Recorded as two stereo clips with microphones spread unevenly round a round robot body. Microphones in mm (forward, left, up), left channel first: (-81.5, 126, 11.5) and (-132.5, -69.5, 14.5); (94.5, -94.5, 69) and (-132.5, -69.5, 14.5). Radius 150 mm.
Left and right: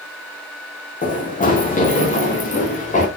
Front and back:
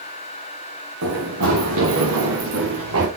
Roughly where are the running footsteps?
Behind left.